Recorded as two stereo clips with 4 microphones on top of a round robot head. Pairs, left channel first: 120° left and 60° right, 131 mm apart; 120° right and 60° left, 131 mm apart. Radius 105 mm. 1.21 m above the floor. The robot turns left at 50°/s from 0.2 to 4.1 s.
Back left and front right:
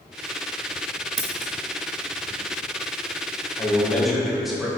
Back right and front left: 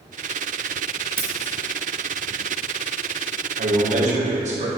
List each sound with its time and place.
1.2 s scissors: 15° right, 0.7 m; by 1.5 s 35° right, 0.7 m
3.6 s a man speaking: 55° left, 1.8 m; by 4.7 s 30° left, 1.8 m